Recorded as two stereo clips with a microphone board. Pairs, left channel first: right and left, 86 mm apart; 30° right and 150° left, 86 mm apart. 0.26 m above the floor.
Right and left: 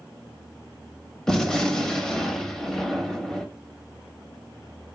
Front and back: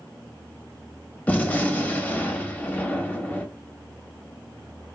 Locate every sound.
1.3 s a gunshot: 20° right, 0.7 m